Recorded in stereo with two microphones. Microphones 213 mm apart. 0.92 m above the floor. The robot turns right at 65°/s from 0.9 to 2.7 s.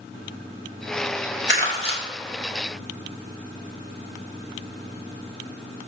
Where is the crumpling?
55° left (ahead or behind), 2 m; by 2.0 s 20° left (ahead or behind), 2 m.